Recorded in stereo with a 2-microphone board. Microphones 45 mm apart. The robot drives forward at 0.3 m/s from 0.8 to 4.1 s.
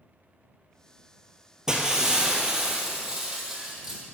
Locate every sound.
1.7 s breaking glass: 15° right (ahead or behind), 1.4 m; by 4.0 s 10° right (ahead or behind), 2 m